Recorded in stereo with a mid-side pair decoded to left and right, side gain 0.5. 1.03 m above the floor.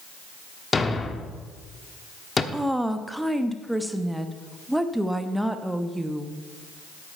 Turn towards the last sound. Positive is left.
turn(degrees=-5)